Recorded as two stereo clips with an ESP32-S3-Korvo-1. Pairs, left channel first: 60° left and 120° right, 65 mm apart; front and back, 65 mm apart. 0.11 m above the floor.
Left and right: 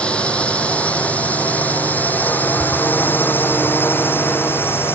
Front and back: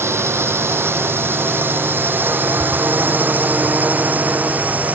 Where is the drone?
130° left; by 5.0 s 115° left.